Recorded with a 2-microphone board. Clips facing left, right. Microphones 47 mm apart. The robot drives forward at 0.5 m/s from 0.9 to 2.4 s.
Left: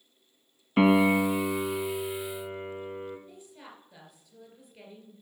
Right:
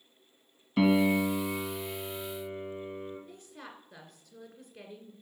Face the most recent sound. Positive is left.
turn(degrees=-65)  # may be behind; listen again after turning